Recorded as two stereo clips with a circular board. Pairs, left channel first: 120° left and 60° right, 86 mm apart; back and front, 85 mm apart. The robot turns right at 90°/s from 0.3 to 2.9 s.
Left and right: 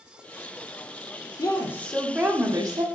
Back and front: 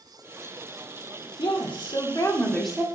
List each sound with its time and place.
1.4 s a woman speaking: 155° left, 1.5 m; by 2.8 s 75° right, 1.5 m